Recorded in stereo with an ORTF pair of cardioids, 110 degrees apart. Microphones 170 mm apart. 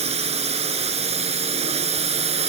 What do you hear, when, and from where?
0.0 s a drone: 40° right